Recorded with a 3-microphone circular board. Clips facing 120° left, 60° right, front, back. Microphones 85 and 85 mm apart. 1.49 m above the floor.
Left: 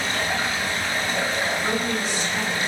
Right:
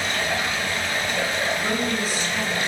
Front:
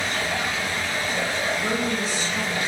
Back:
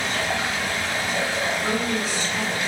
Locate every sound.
0.0 s running water: 175° left, 0.9 m
1.6 s a woman speaking: 25° left, 1.7 m